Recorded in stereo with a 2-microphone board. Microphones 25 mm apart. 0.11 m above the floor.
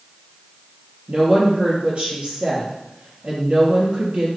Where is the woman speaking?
55° right (ahead or behind), 3 m.